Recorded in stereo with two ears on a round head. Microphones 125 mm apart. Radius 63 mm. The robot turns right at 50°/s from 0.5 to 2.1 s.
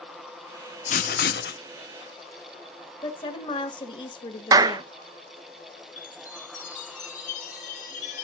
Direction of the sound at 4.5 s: 25° right (ahead or behind).